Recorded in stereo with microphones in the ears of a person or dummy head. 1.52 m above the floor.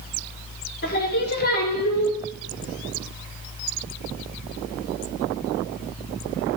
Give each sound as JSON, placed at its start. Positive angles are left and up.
{"t": 0.8, "sound": "singing", "side_deg": 50, "distance_m": 1.1}